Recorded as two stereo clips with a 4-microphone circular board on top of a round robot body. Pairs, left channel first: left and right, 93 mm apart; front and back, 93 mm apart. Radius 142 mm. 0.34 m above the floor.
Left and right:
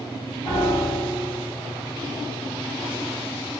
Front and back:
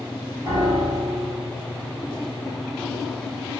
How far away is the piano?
About 3.5 m.